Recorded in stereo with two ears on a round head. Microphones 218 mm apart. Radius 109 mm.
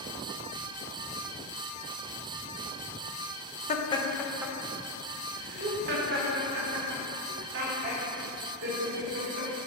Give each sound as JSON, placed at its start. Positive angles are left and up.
{"t": 3.7, "sound": "laughter", "side_deg": 30, "distance_m": 1.0}